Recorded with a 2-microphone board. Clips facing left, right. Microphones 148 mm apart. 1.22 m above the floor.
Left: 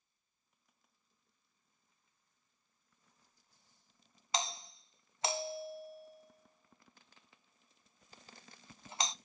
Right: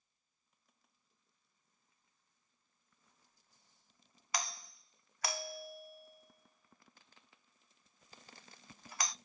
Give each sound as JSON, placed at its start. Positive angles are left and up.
{"t": 4.3, "sound": "a doorbell", "side_deg": 25, "distance_m": 0.5}